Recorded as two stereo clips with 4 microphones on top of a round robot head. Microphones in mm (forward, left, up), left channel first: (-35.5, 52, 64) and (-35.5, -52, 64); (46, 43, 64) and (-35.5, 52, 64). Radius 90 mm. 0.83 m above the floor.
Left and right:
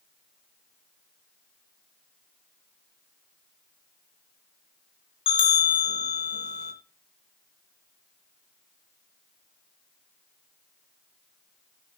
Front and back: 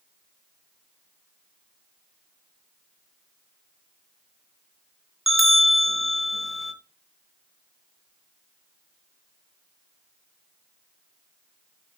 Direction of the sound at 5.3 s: 90° left.